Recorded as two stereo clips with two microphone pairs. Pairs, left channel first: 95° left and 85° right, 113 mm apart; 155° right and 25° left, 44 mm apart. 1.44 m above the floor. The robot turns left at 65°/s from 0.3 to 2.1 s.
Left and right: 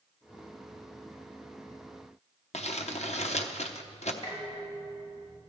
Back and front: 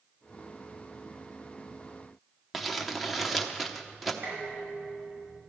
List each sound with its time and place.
2.5 s crumpling: 115° left, 0.9 m
4.2 s dishes clattering: 60° left, 6 m